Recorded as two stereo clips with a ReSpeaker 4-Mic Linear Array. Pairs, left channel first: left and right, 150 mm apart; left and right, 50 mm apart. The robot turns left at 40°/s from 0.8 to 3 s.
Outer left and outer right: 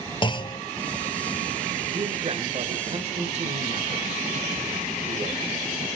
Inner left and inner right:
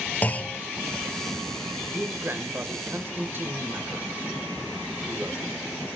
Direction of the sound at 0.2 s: 35° left (ahead or behind).